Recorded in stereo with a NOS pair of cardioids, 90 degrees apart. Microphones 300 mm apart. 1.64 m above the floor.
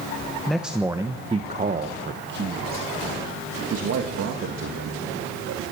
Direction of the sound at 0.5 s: Straight ahead.